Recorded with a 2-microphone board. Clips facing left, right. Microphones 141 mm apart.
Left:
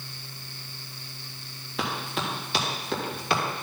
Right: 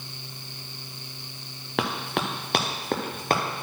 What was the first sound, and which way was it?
Running footsteps, 80° right.